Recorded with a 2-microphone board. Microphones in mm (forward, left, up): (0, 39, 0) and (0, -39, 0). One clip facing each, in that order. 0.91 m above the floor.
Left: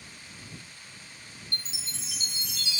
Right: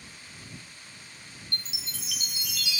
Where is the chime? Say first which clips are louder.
Right 1 dB; 30° left (ahead or behind).